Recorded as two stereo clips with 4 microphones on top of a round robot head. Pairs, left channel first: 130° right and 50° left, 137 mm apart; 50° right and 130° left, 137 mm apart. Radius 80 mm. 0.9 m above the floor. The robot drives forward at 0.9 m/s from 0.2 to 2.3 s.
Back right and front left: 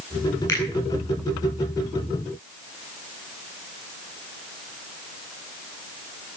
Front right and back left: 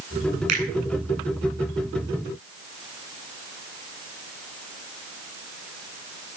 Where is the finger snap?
155° left, 9.5 m.